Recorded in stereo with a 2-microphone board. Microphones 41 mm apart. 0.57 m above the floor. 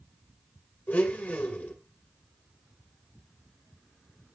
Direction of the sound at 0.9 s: 50° left (ahead or behind).